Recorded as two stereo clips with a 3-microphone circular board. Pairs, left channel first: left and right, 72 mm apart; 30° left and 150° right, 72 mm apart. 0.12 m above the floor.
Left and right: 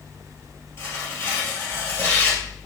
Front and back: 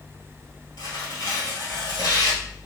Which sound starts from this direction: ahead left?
Tearing paper, at 0.8 s.